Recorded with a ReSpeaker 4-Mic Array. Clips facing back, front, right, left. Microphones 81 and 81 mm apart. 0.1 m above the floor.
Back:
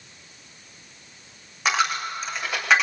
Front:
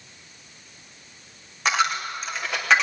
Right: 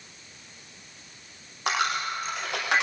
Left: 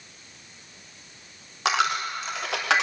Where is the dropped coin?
90° left, 5 m.